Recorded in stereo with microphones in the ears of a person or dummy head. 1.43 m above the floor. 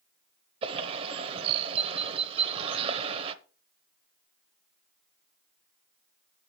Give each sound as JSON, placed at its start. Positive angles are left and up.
{"t": 0.6, "sound": "a bird", "side_deg": -30, "distance_m": 0.8}